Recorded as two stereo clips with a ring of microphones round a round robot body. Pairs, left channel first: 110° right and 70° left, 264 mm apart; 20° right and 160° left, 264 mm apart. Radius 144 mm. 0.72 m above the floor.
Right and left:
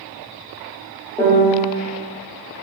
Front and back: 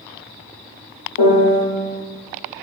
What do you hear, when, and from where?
1.2 s a piano: 30° right, 0.8 m